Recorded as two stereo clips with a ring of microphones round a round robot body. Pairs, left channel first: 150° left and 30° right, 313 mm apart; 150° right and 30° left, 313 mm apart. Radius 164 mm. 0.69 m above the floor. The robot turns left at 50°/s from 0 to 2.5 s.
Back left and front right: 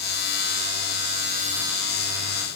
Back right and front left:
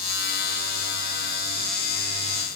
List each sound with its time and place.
Only background noise.